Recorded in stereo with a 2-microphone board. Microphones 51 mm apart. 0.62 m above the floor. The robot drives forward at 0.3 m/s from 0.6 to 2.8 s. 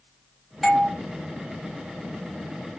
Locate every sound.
0.6 s a doorbell: centre (ahead or behind), 1.3 m